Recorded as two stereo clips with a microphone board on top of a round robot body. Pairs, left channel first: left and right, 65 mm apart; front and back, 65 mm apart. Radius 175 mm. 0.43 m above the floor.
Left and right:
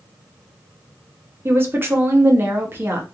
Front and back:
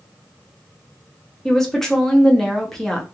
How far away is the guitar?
I don't hear a guitar.